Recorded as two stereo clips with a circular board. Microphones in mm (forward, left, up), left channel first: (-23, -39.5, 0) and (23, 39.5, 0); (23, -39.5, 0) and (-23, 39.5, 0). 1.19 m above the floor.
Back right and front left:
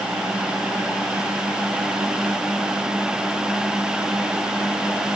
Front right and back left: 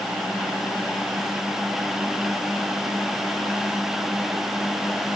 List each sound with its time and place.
Only background noise.